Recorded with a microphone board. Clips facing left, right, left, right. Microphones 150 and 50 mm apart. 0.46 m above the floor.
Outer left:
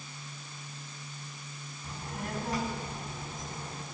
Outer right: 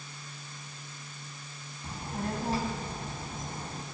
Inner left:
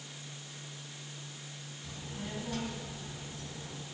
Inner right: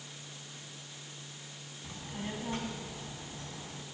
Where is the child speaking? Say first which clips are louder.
Outer right 4 dB, inner right 2 dB; 30° right (ahead or behind), 2.5 m.